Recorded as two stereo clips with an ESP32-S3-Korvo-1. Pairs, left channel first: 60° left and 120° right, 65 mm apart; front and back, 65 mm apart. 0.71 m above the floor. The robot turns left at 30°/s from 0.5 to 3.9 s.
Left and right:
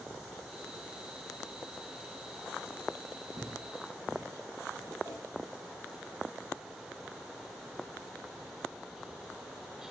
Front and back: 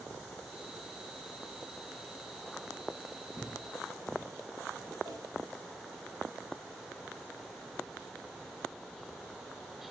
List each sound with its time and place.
3.4 s footsteps: 90° right, 1.7 m; by 4.9 s 110° right, 2.5 m
5.0 s a whoosh: 160° right, 4 m